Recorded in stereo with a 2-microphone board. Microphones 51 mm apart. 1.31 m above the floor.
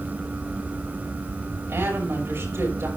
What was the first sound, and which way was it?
A woman speaking, 55° right (ahead or behind).